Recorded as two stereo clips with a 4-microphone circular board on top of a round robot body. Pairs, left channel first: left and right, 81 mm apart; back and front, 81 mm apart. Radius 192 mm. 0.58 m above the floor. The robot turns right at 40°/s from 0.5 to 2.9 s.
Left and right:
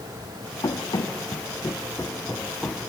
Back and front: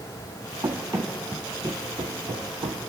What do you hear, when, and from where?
0.6 s running footsteps: 55° left, 1.2 m; by 2.9 s 5° left, 1.3 m